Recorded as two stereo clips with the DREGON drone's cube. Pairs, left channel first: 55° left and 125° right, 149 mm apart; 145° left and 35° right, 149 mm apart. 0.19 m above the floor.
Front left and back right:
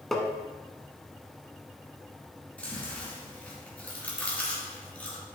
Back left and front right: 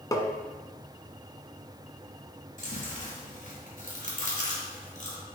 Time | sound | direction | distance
0.1 | tapping | 140° left | 1.0 m
2.6 | chewing | 135° left | 3 m